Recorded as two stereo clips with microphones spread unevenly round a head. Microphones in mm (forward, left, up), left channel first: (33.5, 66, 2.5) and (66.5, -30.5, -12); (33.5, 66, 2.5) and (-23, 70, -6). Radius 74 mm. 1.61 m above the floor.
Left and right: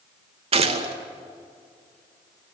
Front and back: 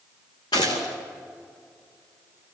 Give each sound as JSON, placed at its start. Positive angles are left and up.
{"t": 0.5, "sound": "a gunshot", "azimuth_deg": -50, "distance_m": 2.5}